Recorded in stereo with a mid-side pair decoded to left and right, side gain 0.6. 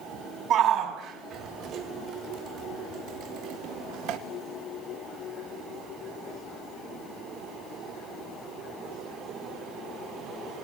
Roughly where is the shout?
Ahead right.